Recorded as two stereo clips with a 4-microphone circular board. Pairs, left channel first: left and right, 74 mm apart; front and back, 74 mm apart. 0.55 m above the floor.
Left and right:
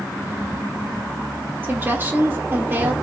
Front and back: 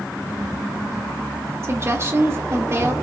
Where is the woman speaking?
145° right, 1.7 m.